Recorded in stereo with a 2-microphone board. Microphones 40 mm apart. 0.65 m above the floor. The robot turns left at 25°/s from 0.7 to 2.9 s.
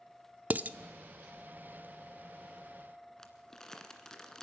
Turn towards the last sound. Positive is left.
turn(degrees=15)  # may be behind; listen again after turning